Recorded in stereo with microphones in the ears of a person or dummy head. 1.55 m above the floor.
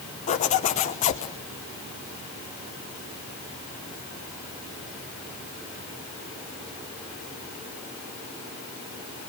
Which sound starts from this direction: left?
A zipper, at 0.3 s.